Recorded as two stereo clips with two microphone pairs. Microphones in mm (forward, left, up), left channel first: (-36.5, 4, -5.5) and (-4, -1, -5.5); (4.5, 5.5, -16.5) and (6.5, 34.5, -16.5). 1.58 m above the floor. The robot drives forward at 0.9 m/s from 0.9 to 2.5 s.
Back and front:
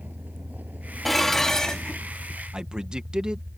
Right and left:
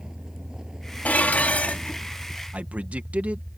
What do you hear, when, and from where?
0.0 s a vehicle: 20° left
1.1 s dishes clattering: 100° right; by 2.0 s 125° right
2.5 s a man speaking: 55° left